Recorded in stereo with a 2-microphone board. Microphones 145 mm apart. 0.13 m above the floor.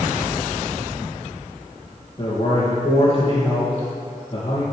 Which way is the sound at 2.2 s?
40° left (ahead or behind).